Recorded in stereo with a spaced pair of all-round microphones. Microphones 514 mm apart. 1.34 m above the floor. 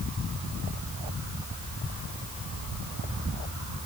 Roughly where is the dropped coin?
No dropped coin in this recording.